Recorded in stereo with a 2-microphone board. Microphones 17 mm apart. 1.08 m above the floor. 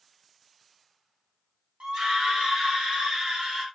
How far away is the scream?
About 3.5 m.